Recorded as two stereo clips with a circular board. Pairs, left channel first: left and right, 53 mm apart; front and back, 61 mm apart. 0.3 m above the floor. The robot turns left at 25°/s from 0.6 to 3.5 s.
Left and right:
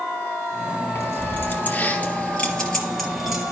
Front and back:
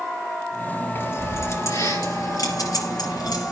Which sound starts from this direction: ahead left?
Keys jangling, at 0.9 s.